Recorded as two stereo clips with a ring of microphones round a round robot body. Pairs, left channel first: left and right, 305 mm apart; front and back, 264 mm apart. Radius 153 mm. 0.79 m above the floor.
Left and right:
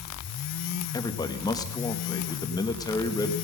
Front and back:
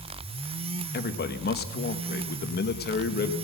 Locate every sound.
0.9 s a man speaking: 20° left, 1.1 m